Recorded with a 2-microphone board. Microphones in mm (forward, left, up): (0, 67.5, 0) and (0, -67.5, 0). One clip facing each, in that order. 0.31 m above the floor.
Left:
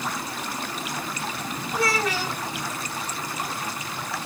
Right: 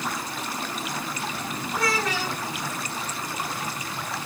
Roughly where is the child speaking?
Centre.